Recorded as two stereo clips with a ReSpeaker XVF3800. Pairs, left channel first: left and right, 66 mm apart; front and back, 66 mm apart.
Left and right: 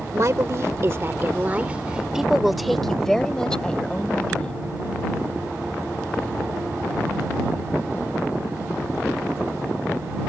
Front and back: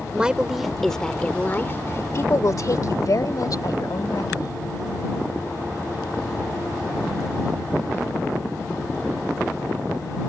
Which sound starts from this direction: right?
A woman speaking, at 0.1 s.